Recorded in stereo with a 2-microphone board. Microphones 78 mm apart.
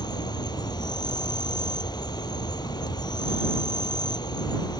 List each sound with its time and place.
0.0 s an insect: 65° left (ahead or behind)